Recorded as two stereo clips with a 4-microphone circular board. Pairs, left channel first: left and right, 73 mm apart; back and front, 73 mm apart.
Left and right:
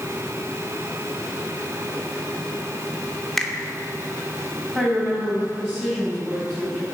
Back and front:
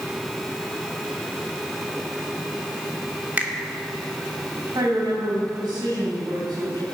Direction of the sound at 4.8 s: 20° right.